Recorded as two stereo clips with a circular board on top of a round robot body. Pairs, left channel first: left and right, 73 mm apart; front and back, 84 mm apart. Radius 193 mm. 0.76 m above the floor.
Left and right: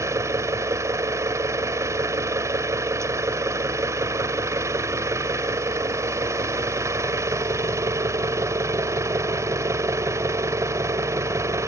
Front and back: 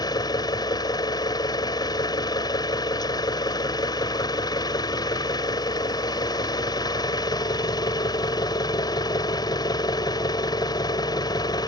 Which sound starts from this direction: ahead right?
An engine running, at 0.0 s.